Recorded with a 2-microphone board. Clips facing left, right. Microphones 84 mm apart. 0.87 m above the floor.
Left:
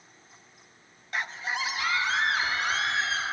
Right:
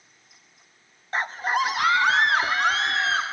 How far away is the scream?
About 0.6 m.